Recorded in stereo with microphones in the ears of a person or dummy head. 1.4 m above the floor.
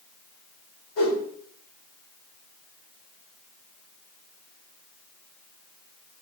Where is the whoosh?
65° left (ahead or behind), 2.5 m.